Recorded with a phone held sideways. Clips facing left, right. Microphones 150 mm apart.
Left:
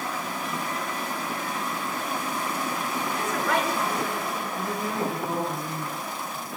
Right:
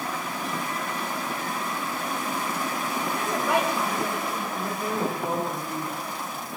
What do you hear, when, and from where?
3.1 s a woman speaking: 20° right (ahead or behind), 6 m
4.5 s a woman speaking: 55° right (ahead or behind), 4 m